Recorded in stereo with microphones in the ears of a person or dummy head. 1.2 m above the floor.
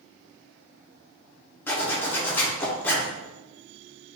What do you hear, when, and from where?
1.7 s a zipper: 10° left (ahead or behind), 0.6 m